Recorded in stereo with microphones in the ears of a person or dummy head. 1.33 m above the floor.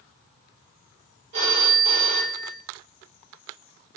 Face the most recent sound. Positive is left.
turn(degrees=-35)  # may be behind; listen again after turning